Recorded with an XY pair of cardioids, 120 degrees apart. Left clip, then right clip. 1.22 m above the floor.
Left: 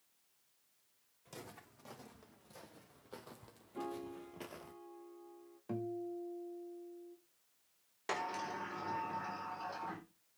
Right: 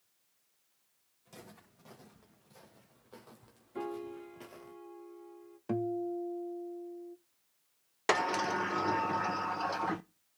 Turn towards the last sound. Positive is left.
turn(degrees=-60)